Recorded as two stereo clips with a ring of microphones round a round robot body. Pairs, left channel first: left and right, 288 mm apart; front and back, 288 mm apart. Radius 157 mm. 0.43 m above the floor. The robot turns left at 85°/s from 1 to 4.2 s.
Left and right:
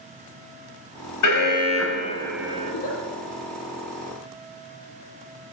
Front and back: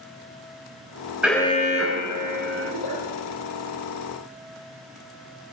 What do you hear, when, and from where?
1.2 s an alarm: 95° left, 3 m; by 2.7 s 30° right, 3 m
2.7 s a giggle: 40° left, 8 m; by 3.0 s 10° left, 8 m